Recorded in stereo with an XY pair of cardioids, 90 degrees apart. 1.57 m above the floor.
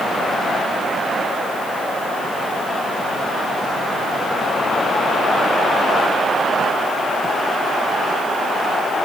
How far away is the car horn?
I don't hear a car horn.